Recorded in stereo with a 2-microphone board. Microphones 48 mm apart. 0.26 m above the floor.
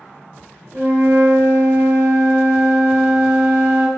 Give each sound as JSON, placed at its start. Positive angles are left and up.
{"t": 0.7, "sound": "a flute", "side_deg": -50, "distance_m": 0.7}